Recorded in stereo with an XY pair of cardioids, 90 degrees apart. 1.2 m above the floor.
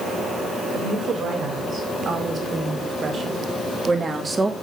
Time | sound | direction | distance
0.7 | a woman speaking | 55° right | 6.5 m